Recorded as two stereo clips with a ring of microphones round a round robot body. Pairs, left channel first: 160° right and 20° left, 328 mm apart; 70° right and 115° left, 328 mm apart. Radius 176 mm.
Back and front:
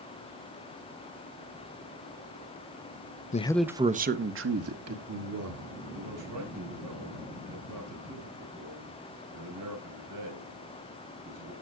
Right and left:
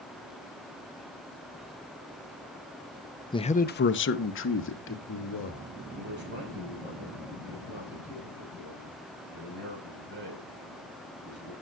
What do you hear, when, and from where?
3.3 s a man speaking: 130° right, 0.7 m; by 5.7 s 15° right, 2 m
5.9 s a man speaking: 55° left, 5.5 m